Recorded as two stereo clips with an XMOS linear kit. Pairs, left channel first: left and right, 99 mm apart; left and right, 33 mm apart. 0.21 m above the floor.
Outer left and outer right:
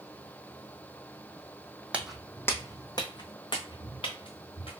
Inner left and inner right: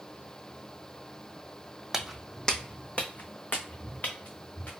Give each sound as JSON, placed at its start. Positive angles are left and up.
{"t": 1.9, "sound": "footsteps", "side_deg": -15, "distance_m": 0.5}